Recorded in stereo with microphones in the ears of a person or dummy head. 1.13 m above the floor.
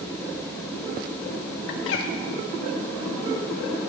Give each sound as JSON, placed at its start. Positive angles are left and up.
{"t": 1.7, "sound": "a bird", "side_deg": 75, "distance_m": 1.5}